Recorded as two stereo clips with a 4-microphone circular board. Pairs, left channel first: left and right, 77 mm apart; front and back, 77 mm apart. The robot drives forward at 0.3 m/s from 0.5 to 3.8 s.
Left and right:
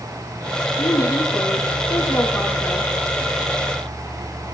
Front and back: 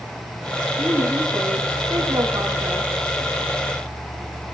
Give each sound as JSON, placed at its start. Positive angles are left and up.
{"t": 0.8, "sound": "a woman speaking", "azimuth_deg": 135, "distance_m": 6.0}